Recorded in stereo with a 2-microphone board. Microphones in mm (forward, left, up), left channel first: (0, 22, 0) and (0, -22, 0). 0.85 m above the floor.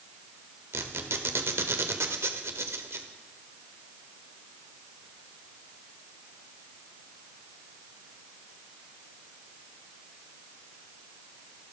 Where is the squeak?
80° right, 1.4 m.